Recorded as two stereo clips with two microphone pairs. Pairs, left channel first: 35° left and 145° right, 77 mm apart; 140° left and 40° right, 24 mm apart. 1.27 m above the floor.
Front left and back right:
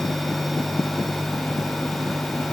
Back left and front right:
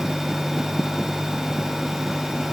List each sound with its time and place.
Only background noise.